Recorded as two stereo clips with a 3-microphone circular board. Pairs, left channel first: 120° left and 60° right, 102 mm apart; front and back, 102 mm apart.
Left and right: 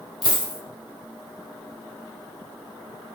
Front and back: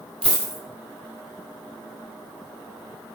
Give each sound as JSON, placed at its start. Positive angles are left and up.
{"t": 0.2, "sound": "a dropped coin", "azimuth_deg": -80, "distance_m": 1.5}